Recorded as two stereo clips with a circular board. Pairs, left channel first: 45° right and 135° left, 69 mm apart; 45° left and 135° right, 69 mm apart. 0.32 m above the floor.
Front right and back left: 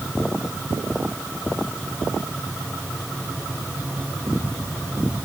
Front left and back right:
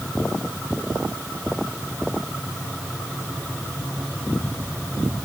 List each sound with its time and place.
Only background noise.